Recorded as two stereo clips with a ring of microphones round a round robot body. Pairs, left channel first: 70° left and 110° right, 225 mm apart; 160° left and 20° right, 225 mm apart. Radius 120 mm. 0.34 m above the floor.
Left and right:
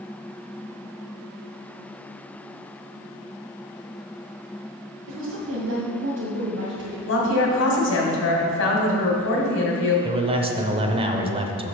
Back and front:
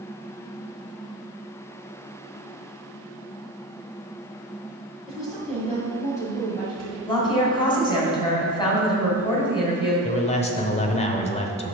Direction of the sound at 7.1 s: 90° left.